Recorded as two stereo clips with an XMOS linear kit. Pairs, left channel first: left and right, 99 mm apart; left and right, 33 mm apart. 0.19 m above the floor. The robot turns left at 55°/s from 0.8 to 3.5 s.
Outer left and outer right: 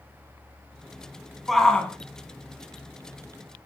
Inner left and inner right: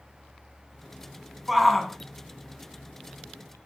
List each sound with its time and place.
1.5 s a shout: centre (ahead or behind), 1.4 m; by 1.9 s 15° left (ahead or behind), 1.4 m